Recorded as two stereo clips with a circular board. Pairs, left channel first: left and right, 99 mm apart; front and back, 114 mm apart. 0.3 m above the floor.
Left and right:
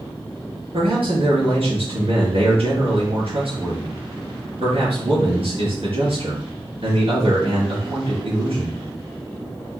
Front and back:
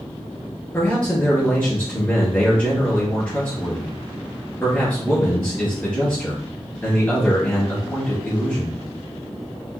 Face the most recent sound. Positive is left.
turn(degrees=-75)